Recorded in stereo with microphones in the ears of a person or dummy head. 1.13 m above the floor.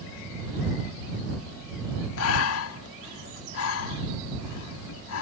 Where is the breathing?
85° left.